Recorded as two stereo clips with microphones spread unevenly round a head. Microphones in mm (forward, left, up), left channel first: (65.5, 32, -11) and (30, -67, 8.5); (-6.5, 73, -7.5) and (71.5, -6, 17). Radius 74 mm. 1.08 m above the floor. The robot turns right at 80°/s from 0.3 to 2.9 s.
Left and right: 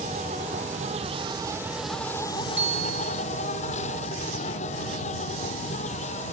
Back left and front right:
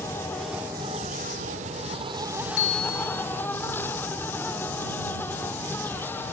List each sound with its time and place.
0.0 s an insect: 150° right; by 6.3 s 60° left
2.6 s a bicycle bell: 170° left; by 3.2 s 160° right